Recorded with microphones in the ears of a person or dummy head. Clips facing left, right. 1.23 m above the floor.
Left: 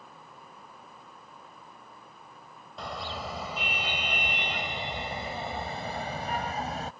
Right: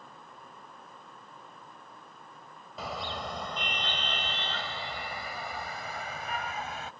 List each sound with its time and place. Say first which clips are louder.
2.8 s a car horn: even; 10° right (ahead or behind); by 6.9 s 30° left (ahead or behind)